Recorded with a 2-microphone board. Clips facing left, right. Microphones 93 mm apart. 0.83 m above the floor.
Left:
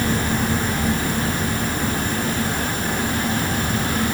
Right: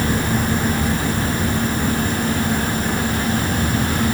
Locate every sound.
Only background noise.